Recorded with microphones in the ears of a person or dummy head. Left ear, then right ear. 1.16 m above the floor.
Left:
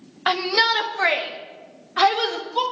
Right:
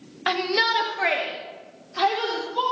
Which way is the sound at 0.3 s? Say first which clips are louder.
Left 3 dB; 25° left (ahead or behind).